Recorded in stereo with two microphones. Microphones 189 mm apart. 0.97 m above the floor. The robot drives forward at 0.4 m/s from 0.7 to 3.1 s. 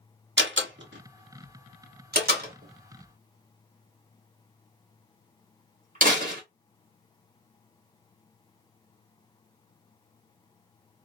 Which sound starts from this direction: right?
A door slam, at 0.4 s.